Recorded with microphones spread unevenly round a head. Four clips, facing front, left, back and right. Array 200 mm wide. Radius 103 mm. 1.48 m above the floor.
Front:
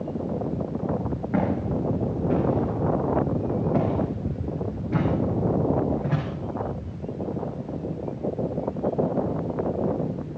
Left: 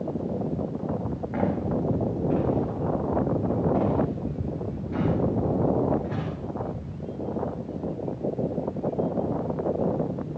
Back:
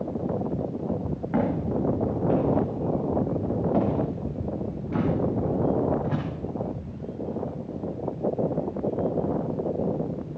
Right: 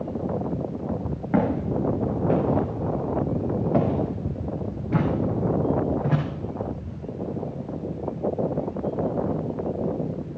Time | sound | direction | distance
1.3 | footsteps | 90° right | 9.5 m